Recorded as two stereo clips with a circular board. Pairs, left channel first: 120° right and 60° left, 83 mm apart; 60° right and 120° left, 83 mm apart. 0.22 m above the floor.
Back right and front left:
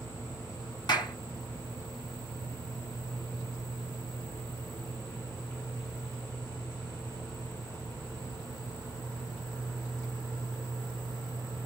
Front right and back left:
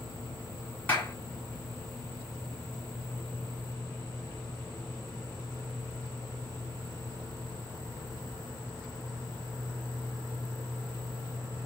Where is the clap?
130° right, 2.0 m.